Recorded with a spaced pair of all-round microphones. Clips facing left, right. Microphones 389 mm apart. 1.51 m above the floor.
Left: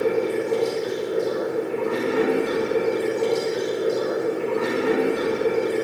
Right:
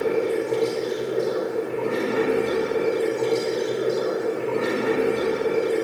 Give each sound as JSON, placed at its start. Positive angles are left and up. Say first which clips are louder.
{"t": 0.0, "sound": "running water", "louder": "even", "side_deg": 25, "distance_m": 3.0}